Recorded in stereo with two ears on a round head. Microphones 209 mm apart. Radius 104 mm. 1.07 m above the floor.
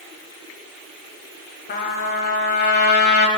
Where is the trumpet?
45° left (ahead or behind), 1.3 m.